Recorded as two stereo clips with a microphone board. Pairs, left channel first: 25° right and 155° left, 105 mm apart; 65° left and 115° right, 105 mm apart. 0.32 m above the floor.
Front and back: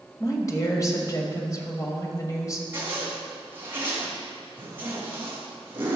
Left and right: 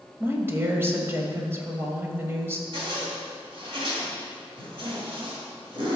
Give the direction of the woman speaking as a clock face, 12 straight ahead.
2 o'clock.